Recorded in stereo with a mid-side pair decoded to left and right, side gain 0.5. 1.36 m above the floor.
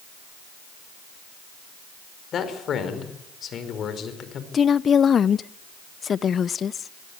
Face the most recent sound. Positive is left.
turn(degrees=45)